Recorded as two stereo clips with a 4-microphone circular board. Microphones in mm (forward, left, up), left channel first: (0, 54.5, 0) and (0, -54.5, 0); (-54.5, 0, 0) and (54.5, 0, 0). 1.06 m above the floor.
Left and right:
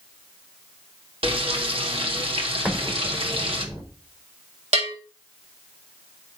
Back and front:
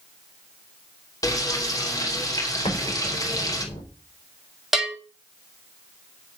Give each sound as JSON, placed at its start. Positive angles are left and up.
{"t": 1.2, "sound": "frying", "azimuth_deg": -125, "distance_m": 2.5}
{"t": 2.6, "sound": "an explosion", "azimuth_deg": -160, "distance_m": 4.5}
{"t": 4.7, "sound": "a bell", "azimuth_deg": -90, "distance_m": 4.0}